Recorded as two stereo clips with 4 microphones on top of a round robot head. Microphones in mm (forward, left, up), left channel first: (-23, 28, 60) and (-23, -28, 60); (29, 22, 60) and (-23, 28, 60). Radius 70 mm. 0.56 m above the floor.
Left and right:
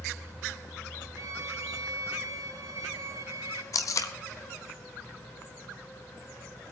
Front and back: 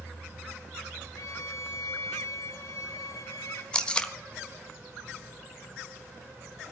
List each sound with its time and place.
1.2 s a violin: 45° right, 0.8 m
3.7 s tape being pulled: 65° left, 1.4 m